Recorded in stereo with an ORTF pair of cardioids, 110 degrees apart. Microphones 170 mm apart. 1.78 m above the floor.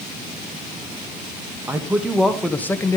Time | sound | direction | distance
1.7 | a man speaking | 10° right | 2.5 m